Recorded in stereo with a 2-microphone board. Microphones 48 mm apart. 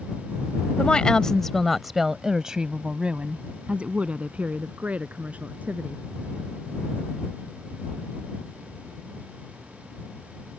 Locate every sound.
0.8 s a woman speaking: 25° left (ahead or behind); by 6.0 s 30° right (ahead or behind)